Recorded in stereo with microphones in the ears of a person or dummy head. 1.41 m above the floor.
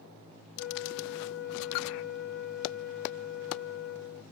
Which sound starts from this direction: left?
A flute, at 0.6 s.